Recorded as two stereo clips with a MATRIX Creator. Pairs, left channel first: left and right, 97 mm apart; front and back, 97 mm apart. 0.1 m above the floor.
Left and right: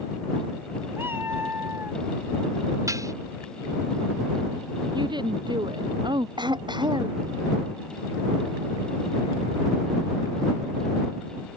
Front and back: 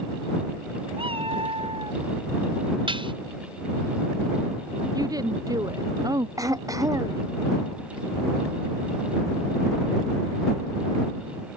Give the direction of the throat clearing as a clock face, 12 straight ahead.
4 o'clock.